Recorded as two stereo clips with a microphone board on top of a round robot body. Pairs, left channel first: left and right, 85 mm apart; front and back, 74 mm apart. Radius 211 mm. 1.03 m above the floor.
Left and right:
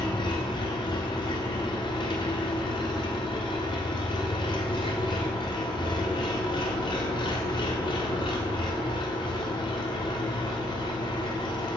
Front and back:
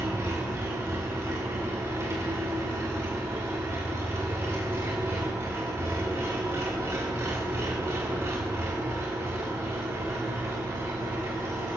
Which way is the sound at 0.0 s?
120° left.